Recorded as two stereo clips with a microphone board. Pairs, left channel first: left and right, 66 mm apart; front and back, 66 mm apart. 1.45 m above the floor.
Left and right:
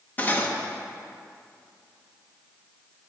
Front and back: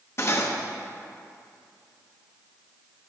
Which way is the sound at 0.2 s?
35° left.